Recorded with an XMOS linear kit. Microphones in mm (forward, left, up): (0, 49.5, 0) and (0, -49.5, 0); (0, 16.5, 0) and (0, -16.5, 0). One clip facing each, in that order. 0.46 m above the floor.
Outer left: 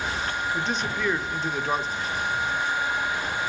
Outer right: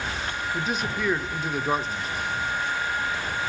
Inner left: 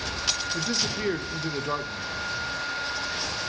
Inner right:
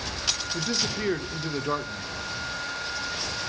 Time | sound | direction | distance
0.5 | a man speaking | 5° right (ahead or behind) | 0.8 m